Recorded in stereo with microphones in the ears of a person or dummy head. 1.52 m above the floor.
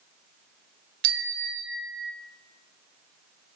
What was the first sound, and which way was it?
A bicycle bell, 75° right (ahead or behind).